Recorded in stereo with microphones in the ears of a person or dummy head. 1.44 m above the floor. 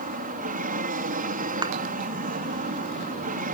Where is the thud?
20° right (ahead or behind).